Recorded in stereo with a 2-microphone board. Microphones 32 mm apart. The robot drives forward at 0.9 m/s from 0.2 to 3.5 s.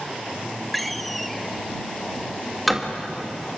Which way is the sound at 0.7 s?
5° left (ahead or behind).